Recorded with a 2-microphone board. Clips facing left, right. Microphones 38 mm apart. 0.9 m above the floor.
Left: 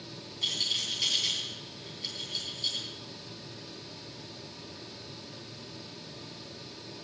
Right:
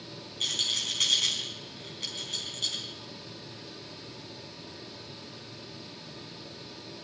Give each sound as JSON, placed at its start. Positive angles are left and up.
{"t": 0.4, "sound": "a rattle", "side_deg": -90, "distance_m": 4.5}